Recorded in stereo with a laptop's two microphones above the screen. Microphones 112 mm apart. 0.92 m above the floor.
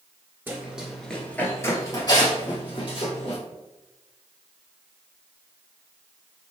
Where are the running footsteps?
15° right (ahead or behind), 0.9 m; by 3.4 s 50° left (ahead or behind), 1.8 m.